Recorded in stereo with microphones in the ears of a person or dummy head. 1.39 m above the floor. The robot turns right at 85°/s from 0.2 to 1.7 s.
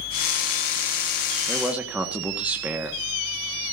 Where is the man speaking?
10° left (ahead or behind), 1.7 m; by 3.0 s 5° right (ahead or behind), 1.7 m.